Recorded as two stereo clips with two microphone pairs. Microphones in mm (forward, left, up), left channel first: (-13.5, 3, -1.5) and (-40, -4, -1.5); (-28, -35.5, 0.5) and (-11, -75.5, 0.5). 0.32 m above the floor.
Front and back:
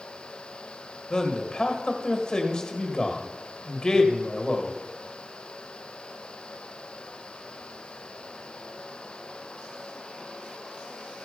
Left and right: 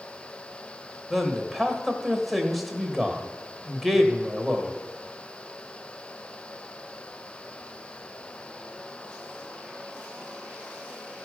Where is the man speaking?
20° left, 1.4 m.